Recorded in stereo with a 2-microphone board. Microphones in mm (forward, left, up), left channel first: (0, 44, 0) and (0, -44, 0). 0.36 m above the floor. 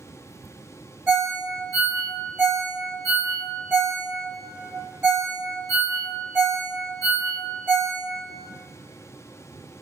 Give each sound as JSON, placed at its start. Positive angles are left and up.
{"t": 1.1, "sound": "a ringtone", "side_deg": -25, "distance_m": 1.0}